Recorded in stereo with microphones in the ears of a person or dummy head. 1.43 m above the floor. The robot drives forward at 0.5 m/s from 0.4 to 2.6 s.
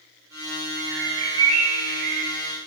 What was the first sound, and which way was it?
A bird, 55° right (ahead or behind).